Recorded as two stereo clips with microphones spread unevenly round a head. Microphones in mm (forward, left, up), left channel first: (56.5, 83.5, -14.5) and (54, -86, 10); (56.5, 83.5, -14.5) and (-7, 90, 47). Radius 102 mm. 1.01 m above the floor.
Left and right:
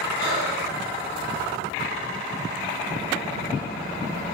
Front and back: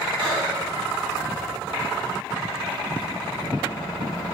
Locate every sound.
0.2 s breathing: 125° left, 1.8 m